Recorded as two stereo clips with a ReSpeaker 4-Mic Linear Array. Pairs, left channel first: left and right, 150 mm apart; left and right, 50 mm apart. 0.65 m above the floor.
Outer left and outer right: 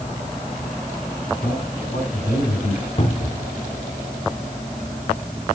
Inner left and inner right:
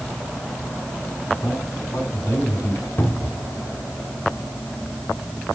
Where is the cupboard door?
45° left (ahead or behind), 1.3 m.